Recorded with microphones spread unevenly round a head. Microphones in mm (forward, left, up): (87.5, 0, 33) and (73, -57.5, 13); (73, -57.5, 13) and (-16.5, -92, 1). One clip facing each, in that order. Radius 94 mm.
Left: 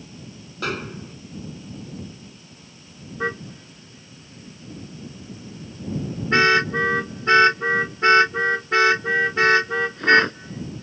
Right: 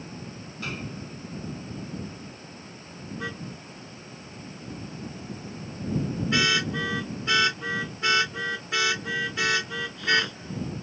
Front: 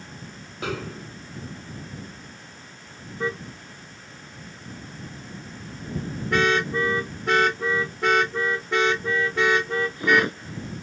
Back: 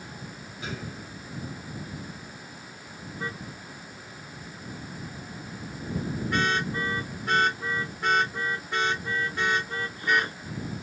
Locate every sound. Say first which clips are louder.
0.6 s a snare drum: left 7 dB, front 7 dB; 80° left
3.2 s a car horn: left 10 dB, front 8 dB; 35° left